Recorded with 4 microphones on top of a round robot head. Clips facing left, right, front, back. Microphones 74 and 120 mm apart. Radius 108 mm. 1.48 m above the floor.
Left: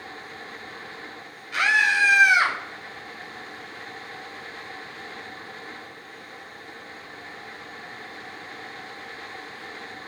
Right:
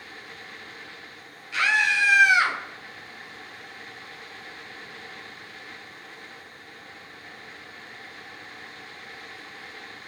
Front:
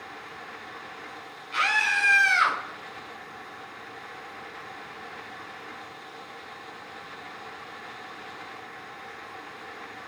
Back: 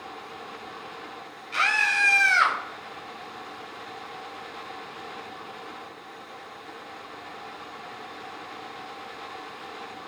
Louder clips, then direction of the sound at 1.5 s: Left 2 dB, even; 135° left.